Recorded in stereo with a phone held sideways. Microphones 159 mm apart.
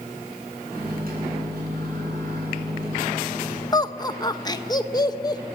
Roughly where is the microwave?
Right.